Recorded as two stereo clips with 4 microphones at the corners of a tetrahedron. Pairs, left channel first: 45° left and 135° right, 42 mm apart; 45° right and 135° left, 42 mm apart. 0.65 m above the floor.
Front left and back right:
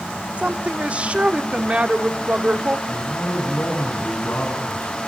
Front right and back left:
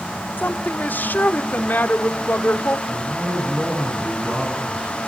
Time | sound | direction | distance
0.4 | a woman speaking | 80° right | 1.3 m
2.9 | a man speaking | 80° left | 7 m